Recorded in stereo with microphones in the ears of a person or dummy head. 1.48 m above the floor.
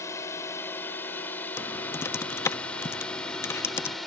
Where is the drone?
15° left (ahead or behind); by 4.1 s 5° left (ahead or behind).